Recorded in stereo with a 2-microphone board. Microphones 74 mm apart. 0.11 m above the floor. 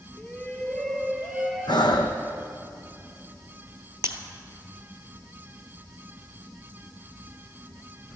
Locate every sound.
0.2 s a shout: 20° left (ahead or behind), 1.7 m; by 2.2 s 20° right (ahead or behind), 1.7 m
1.7 s breathing: 80° left, 1.1 m
4.0 s breaking glass: 35° right (ahead or behind), 1.2 m